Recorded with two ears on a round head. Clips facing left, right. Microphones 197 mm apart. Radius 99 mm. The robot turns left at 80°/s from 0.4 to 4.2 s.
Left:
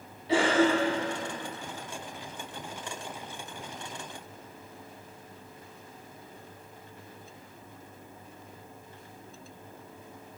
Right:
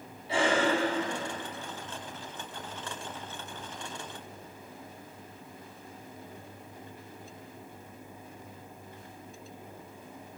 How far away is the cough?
About 1.5 m.